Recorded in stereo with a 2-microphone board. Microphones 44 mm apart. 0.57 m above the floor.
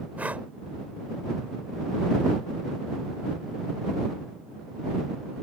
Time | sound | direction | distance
0.2 | breathing | 35° right (ahead or behind) | ?